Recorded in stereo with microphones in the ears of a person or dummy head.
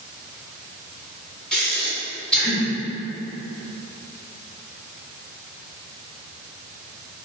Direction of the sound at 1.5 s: 5° left (ahead or behind).